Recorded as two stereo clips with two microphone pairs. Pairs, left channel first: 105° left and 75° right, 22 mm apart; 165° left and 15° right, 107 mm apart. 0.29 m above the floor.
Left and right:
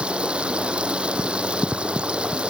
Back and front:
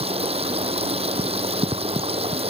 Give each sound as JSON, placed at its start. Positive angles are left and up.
{"t": 0.0, "sound": "running water", "azimuth_deg": -40}